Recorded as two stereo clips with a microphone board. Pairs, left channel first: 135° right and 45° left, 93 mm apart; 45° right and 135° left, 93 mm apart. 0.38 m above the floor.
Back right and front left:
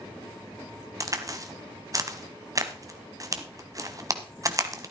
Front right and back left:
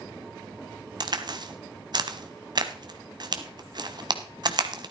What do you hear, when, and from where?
1.0 s a crack: 100° left, 1.1 m